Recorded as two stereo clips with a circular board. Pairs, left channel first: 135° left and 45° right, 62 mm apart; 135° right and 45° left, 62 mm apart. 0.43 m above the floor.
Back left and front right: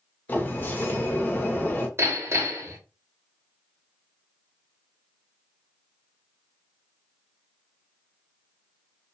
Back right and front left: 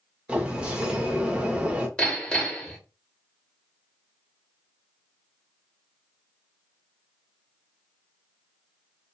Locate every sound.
0.3 s a sliding door: 105° left, 0.6 m
2.0 s hammering: 65° right, 0.9 m